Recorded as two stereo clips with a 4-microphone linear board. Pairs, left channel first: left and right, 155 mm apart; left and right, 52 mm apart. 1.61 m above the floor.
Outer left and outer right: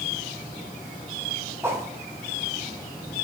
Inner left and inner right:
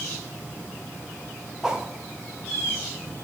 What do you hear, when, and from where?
1.6 s a whoosh: 15° right (ahead or behind), 0.9 m